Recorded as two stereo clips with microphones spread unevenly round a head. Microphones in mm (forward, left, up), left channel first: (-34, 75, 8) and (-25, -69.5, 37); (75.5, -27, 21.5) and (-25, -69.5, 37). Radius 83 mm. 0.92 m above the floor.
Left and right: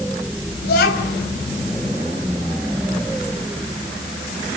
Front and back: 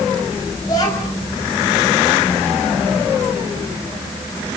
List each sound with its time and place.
0.6 s a child speaking: 90° left, 5 m